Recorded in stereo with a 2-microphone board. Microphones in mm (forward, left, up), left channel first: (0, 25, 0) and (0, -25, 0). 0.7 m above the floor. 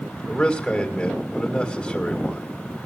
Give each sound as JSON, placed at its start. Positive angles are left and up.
{"t": 0.3, "sound": "a man speaking", "side_deg": 10, "distance_m": 4.0}